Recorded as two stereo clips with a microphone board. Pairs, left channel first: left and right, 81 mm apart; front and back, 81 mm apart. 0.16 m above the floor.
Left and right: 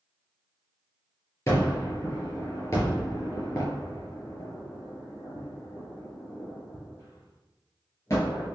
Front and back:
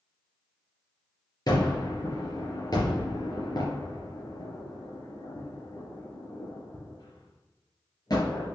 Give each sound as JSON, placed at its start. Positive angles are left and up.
{"t": 1.5, "sound": "a gunshot", "azimuth_deg": 35, "distance_m": 4.0}